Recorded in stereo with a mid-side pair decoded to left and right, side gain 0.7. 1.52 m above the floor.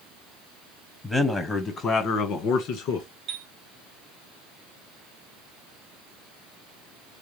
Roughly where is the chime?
Ahead right.